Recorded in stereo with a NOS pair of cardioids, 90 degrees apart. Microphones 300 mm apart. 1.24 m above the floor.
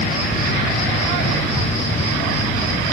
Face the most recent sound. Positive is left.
turn(degrees=25)